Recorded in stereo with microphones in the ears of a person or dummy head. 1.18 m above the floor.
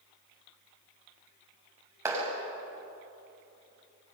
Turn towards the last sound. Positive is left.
turn(degrees=-20)  # may be behind; listen again after turning